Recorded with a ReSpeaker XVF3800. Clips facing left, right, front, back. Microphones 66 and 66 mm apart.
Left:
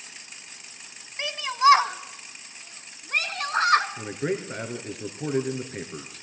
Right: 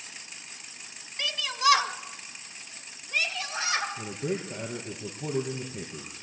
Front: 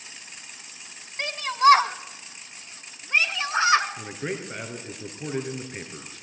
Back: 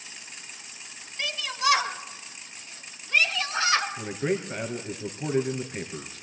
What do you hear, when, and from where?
1.2 s a shout: 30° left, 1.9 m; by 3.9 s 65° left, 3 m
4.0 s a man speaking: 85° left, 3.5 m